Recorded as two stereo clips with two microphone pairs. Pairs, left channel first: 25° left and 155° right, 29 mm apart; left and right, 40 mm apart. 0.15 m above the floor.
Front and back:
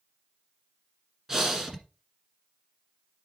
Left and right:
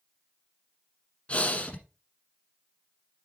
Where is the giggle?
I don't hear a giggle.